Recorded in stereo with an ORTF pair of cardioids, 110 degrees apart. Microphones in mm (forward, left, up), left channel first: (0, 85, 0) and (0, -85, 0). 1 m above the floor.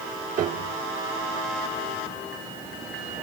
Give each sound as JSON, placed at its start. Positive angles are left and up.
{"t": 0.4, "sound": "a piano", "azimuth_deg": -50, "distance_m": 1.1}